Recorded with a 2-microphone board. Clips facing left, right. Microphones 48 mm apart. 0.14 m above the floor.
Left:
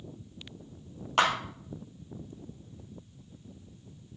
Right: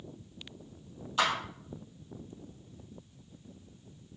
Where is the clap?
70° left (ahead or behind), 3.5 m.